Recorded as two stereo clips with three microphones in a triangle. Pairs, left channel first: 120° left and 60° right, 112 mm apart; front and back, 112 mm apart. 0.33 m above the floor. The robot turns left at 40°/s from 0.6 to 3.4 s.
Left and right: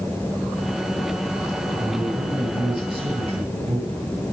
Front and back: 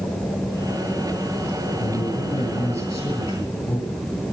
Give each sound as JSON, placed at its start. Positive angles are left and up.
{"t": 1.8, "sound": "a man speaking", "azimuth_deg": 30, "distance_m": 8.0}